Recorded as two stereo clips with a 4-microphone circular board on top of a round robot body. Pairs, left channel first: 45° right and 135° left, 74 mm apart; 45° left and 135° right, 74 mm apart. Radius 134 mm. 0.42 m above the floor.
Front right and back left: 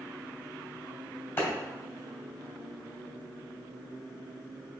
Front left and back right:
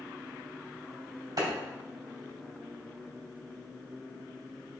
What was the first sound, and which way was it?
A clap, 105° right.